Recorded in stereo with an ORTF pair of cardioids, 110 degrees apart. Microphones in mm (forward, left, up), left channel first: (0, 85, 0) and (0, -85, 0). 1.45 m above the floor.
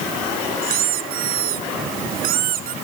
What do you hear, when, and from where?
0.6 s a squeak: 65° right